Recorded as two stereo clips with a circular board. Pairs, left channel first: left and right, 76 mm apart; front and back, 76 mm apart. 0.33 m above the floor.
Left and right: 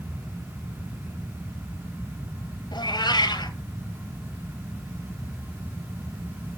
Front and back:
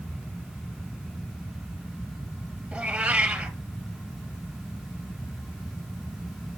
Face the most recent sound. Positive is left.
turn(degrees=110)